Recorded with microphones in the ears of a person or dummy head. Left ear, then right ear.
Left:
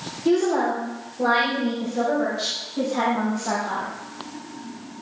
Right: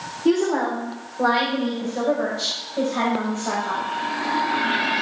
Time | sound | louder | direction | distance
0.2 | a woman speaking | even | 55° right (ahead or behind) | 4 m